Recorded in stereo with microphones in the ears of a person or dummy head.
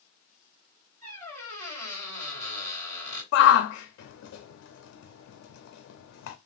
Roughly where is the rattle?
I don't hear a rattle.